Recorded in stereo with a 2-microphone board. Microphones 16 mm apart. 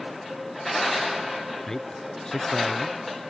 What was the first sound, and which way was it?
A man speaking, 30° left (ahead or behind).